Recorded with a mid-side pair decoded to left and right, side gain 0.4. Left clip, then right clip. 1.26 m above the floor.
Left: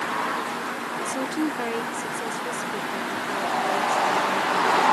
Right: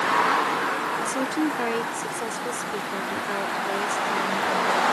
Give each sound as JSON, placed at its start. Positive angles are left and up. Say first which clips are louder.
{"t": 1.0, "sound": "a woman speaking", "louder": "right 1 dB", "azimuth_deg": -15}